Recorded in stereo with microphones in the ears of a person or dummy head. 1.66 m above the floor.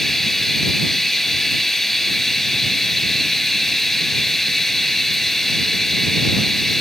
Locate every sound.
0.0 s running water: 5° left (ahead or behind)